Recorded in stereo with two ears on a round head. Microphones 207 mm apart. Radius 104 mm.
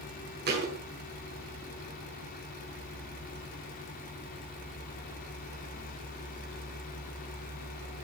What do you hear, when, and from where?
0.5 s a thud: 45° right (ahead or behind), 7 m